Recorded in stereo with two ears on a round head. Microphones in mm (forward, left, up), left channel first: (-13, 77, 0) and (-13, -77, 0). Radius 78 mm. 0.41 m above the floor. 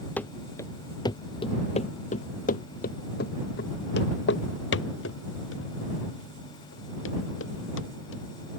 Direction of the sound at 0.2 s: 10° left (ahead or behind).